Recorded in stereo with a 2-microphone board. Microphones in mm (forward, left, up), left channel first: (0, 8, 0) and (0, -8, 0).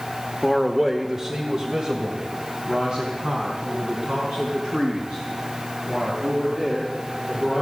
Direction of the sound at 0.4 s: 10° left (ahead or behind).